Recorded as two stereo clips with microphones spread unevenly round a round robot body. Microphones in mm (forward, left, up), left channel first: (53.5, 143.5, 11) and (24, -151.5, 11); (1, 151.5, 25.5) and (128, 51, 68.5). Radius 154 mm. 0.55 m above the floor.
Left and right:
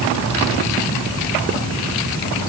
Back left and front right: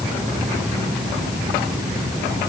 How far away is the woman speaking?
No woman speaking in this recording.